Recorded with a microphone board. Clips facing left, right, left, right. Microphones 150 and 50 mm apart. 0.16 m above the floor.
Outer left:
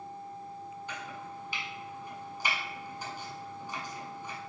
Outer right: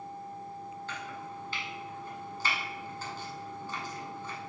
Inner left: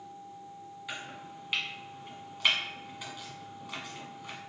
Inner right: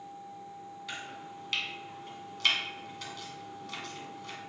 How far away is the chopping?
About 0.9 m.